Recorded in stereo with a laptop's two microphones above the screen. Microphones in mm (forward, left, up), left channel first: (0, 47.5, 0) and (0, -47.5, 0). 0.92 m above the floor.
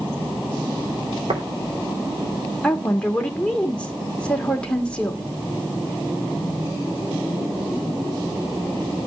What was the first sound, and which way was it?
Tapping, 75° right (ahead or behind).